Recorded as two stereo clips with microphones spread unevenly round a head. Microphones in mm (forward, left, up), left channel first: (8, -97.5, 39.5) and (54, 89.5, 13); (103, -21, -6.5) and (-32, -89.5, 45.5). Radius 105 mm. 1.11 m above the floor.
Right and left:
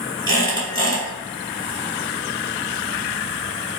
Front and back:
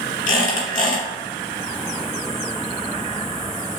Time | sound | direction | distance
0.3 | a squeak | 45° right | 1.6 m